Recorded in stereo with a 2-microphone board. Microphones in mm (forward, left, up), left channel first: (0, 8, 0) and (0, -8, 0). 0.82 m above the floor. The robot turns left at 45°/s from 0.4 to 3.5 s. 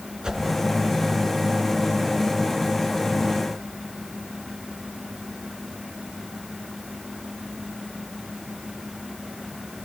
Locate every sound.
0.2 s a whoosh: 55° right (ahead or behind), 4 m